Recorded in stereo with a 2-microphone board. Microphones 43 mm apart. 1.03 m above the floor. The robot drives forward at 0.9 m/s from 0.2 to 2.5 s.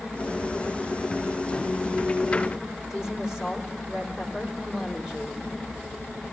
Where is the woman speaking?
20° right (ahead or behind), 3 m.